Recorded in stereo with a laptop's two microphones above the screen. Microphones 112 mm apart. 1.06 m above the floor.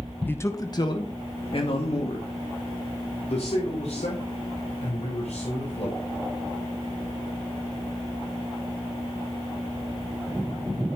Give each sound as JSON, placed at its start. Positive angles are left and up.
{"t": 0.3, "sound": "a man speaking", "side_deg": 15, "distance_m": 1.0}